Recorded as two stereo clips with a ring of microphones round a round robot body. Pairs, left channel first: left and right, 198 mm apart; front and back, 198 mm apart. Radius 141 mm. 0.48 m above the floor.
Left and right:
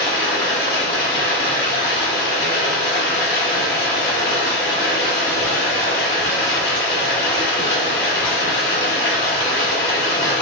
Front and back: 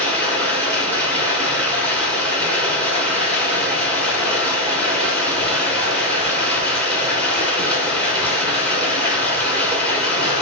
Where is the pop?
No pop in this recording.